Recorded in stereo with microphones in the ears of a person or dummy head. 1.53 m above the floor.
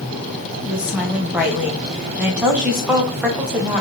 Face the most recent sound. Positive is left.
turn(degrees=-5)  # may be behind; listen again after turning